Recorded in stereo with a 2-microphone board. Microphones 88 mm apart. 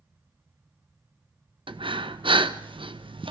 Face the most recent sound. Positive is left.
turn(degrees=-75)  # may be behind; listen again after turning